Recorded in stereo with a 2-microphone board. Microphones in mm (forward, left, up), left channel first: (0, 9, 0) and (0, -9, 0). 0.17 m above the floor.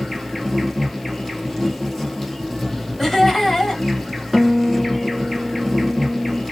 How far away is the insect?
About 1.3 m.